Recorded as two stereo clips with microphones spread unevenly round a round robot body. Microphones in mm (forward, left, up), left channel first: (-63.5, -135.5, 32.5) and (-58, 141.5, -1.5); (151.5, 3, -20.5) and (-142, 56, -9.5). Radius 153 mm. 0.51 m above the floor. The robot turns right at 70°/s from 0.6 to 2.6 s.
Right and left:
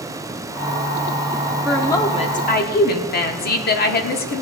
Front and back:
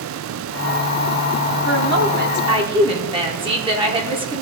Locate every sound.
1.6 s a woman speaking: 170° left, 1.4 m; by 4.4 s 125° right, 1.4 m